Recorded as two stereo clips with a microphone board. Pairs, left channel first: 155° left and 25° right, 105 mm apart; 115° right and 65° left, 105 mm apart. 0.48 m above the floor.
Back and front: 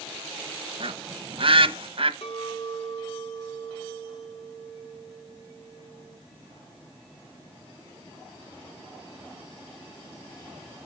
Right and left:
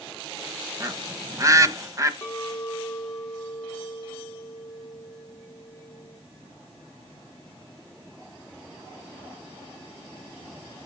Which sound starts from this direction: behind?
A clink, at 2.2 s.